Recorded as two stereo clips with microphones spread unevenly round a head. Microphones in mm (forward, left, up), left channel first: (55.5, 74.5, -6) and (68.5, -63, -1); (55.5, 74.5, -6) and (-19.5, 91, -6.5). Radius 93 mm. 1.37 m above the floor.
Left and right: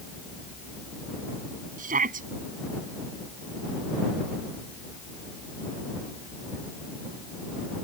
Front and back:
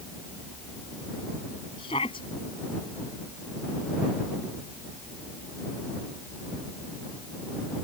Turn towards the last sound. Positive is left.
turn(degrees=-65)